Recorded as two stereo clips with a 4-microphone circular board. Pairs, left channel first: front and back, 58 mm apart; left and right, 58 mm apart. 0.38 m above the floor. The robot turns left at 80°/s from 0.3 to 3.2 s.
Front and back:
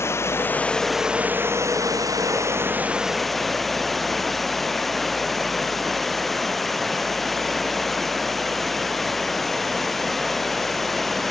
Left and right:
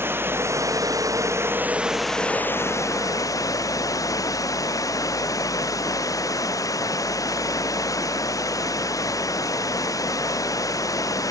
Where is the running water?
40° right; by 11.3 s 85° left.